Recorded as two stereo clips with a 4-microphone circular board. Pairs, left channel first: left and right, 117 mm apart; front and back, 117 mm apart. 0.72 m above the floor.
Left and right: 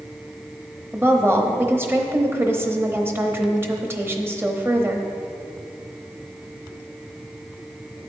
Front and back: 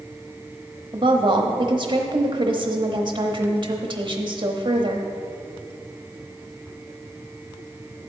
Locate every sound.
0.9 s a woman speaking: 155° right, 0.9 m